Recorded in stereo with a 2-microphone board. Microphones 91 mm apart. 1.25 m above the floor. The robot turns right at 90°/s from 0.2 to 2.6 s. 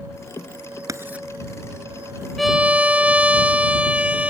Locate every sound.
0.9 s writing: 40° right (ahead or behind); by 1.3 s 5° right (ahead or behind)
2.4 s a violin: centre (ahead or behind); by 4.3 s 15° right (ahead or behind)